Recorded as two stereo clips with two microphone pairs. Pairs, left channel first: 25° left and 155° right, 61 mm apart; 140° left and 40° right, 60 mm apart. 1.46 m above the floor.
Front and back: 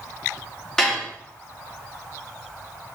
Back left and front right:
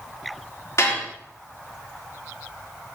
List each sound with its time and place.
0.8 s dishes clattering: 105° left, 2.5 m